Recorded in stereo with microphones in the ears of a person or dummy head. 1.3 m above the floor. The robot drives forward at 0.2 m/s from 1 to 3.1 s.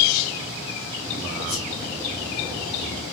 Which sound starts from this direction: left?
A whoosh, at 1.5 s.